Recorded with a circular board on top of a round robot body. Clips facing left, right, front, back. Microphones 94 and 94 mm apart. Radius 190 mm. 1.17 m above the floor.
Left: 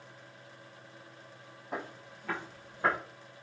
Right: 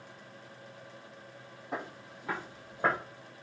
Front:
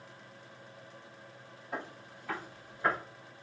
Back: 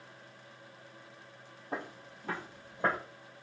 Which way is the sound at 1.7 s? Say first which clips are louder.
Right 1 dB, back 1 dB; 175° right.